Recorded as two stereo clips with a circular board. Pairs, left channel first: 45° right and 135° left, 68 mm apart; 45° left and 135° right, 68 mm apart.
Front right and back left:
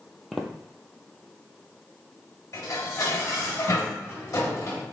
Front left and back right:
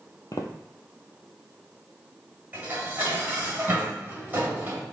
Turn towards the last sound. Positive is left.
turn(degrees=-75)